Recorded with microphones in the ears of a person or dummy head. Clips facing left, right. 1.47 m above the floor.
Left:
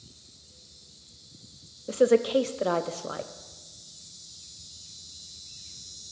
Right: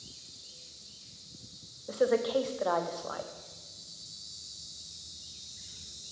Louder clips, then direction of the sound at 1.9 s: Left 6 dB; 40° left (ahead or behind).